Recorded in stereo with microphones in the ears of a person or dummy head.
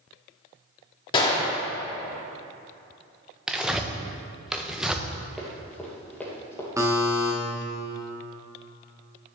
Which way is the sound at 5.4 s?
Centre (ahead or behind).